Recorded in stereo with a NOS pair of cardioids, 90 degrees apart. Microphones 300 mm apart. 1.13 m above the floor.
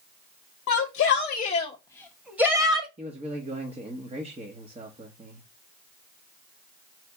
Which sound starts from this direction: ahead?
A man speaking, at 3.0 s.